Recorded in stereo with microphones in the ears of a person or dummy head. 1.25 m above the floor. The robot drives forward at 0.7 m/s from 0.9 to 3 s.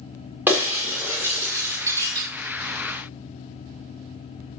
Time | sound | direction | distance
0.5 | breaking glass | 10° right (ahead or behind) | 2 m